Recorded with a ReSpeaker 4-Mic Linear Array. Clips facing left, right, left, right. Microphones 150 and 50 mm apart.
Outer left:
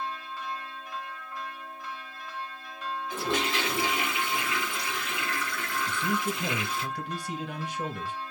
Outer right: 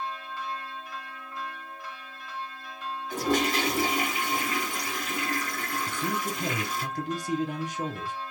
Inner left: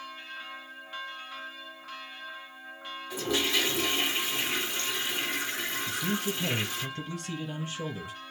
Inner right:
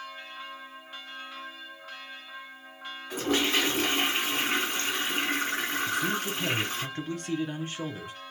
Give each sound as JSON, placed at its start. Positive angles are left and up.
{"t": 3.1, "sound": "a toilet flushing", "side_deg": -40, "distance_m": 1.7}
{"t": 5.9, "sound": "a man speaking", "side_deg": -40, "distance_m": 2.5}